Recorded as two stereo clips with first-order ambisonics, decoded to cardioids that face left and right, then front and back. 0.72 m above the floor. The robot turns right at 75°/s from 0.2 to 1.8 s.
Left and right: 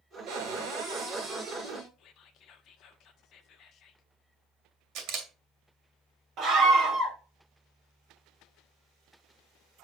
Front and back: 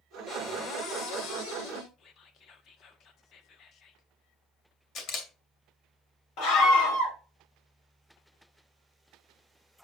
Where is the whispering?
50° left, 1.0 m.